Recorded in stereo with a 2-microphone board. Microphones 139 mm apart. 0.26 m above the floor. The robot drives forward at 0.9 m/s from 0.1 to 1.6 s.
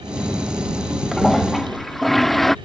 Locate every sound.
1.1 s a toilet flushing: centre (ahead or behind)